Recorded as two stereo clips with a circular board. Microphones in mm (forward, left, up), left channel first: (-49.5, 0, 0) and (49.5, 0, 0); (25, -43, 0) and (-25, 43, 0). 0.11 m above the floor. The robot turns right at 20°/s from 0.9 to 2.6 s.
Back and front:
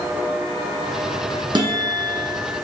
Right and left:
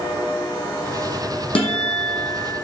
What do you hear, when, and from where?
1.6 s a guitar: 40° right, 0.8 m; by 2.5 s 20° right, 0.8 m